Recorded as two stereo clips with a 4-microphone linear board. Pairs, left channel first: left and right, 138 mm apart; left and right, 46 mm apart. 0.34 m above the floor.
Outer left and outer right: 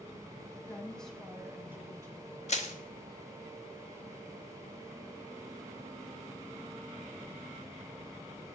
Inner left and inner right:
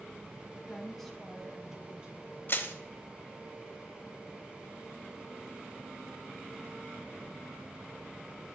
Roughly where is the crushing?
Left.